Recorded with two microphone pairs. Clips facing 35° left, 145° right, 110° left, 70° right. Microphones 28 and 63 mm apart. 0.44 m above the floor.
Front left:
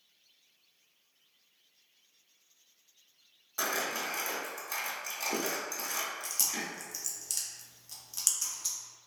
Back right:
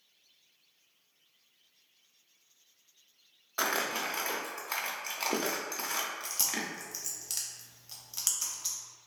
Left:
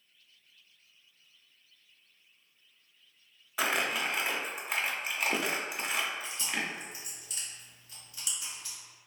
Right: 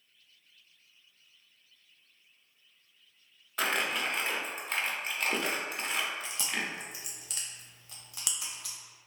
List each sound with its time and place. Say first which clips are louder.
3.6 s crumpling: back right 2 dB, even; 170° right, 0.6 m
6.2 s chewing: back right 1 dB, even; 75° right, 0.7 m